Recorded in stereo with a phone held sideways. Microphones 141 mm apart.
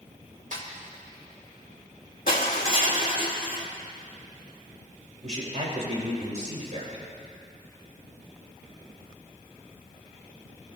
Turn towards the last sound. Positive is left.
turn(degrees=-55)  # may be behind; listen again after turning